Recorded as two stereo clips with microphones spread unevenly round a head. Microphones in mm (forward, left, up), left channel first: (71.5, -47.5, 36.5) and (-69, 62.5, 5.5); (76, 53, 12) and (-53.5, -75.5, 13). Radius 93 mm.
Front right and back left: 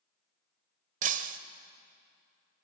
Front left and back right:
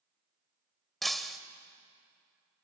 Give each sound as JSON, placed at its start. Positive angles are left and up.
{"t": 1.0, "sound": "breaking glass", "azimuth_deg": 135, "distance_m": 1.0}